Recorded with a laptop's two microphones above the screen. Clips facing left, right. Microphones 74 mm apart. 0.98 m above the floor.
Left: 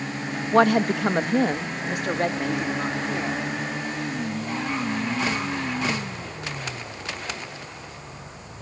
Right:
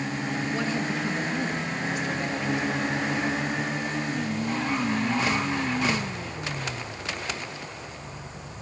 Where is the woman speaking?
65° left (ahead or behind), 0.6 m; by 3.4 s 55° left (ahead or behind), 2.5 m.